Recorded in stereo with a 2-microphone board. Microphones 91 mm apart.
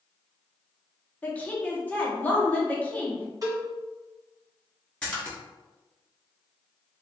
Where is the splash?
10° left (ahead or behind), 1.2 m.